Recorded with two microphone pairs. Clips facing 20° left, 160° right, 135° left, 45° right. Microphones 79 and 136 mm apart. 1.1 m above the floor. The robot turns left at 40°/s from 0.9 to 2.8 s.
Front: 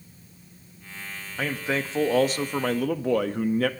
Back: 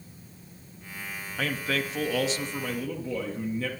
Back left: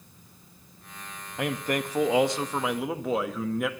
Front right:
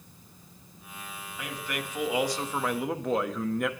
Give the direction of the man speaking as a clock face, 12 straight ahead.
9 o'clock.